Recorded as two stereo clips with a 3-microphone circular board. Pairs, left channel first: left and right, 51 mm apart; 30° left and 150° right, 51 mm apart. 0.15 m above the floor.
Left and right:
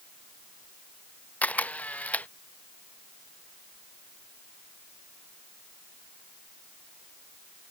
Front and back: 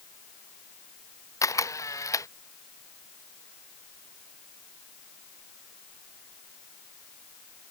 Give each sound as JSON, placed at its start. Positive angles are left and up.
{"t": 1.4, "sound": "a camera shutter", "azimuth_deg": 30}